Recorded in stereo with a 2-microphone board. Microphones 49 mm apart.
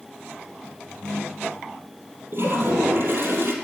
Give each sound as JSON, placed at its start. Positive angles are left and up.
{"t": 0.9, "sound": "a ringtone", "side_deg": -50, "distance_m": 6.5}
{"t": 2.3, "sound": "a toilet flushing", "side_deg": -45, "distance_m": 2.5}